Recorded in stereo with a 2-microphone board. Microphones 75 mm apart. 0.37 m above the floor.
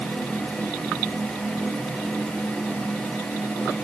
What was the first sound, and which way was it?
Only background noise.